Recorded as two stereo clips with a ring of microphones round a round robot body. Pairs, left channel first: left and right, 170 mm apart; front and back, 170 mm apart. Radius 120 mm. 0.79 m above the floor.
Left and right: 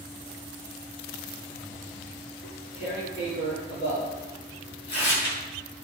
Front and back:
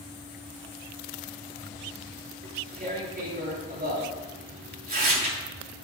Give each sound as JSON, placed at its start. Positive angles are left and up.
{"t": 2.4, "sound": "tearing paper", "azimuth_deg": 145, "distance_m": 7.5}